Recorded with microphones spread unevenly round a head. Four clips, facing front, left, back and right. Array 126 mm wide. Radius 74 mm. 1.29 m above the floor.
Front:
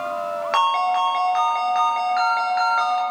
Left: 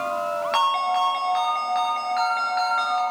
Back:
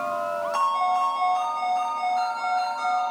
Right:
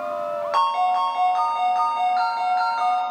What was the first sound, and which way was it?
A ringtone, 15° left.